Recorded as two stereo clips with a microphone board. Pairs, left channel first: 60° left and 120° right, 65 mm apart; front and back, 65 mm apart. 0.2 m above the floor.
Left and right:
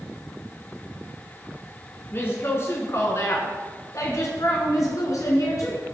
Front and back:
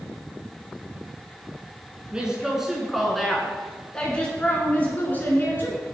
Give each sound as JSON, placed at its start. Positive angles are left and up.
{"t": 2.1, "sound": "a woman speaking", "azimuth_deg": 105, "distance_m": 2.5}